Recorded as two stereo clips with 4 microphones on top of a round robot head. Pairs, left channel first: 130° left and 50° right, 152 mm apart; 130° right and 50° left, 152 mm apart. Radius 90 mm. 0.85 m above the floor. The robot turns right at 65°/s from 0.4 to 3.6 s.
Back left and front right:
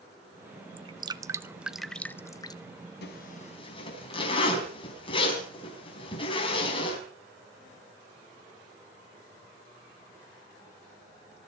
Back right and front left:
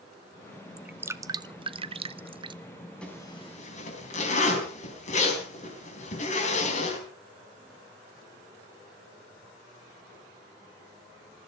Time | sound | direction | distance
0.8 | dripping | 30° right | 0.8 m
3.0 | a zipper | 150° left | 4.5 m